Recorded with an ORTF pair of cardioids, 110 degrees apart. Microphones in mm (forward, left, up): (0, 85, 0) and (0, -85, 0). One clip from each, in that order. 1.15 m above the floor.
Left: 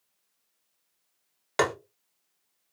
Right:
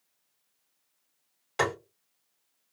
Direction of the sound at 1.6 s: 50° left.